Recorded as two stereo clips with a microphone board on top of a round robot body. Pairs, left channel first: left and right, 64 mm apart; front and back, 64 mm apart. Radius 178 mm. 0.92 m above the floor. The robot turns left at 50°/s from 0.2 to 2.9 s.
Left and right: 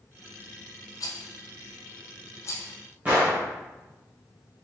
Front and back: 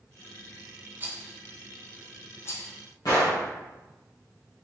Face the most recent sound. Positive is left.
turn(degrees=-25)